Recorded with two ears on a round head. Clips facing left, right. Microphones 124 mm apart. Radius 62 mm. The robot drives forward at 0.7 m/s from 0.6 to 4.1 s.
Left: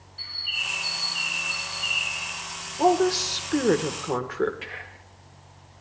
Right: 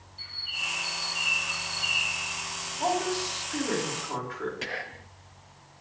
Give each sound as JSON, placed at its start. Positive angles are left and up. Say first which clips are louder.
{"t": 0.2, "sound": "a bird", "louder": "left 2 dB", "side_deg": 65, "distance_m": 2.5}
{"t": 2.8, "sound": "a woman speaking", "louder": "left 8 dB", "side_deg": 75, "distance_m": 2.0}
{"t": 4.6, "sound": "whispering", "louder": "right 4 dB", "side_deg": -45, "distance_m": 0.7}